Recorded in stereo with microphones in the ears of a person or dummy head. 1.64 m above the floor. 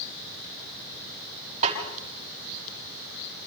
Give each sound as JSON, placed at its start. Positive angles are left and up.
{"t": 1.6, "sound": "a snare drum", "side_deg": -35, "distance_m": 5.5}